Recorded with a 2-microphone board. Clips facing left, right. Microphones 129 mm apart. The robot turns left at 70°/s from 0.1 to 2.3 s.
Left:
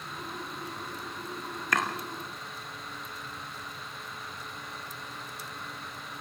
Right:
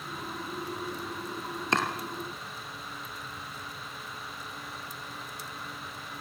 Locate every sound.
1.7 s chopping: 25° right (ahead or behind), 2.5 m; by 1.9 s 35° right (ahead or behind), 2.5 m